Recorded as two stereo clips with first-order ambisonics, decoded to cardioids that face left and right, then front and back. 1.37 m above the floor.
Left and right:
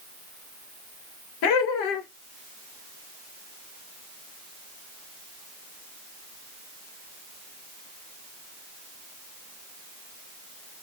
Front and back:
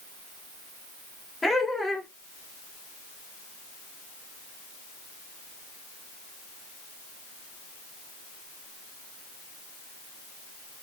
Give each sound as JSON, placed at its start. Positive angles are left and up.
{"t": 1.4, "sound": "laughter", "azimuth_deg": 80, "distance_m": 1.2}